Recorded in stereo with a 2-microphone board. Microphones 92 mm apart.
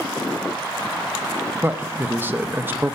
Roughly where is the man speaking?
Right.